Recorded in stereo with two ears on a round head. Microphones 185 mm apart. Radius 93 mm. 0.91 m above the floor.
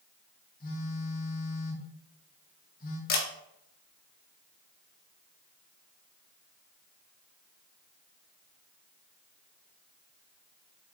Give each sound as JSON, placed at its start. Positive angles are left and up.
{"t": 0.6, "sound": "a phone buzzing", "side_deg": 45, "distance_m": 1.9}
{"t": 3.1, "sound": "a camera shutter", "side_deg": 50, "distance_m": 2.0}